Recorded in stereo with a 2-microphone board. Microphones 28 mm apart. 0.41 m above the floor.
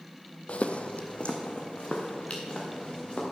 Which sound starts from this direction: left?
Footsteps, at 0.5 s.